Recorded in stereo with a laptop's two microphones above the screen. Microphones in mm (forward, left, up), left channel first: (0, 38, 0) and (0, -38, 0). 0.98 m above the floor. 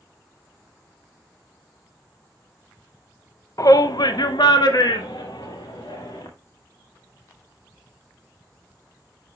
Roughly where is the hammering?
No hammering in this recording.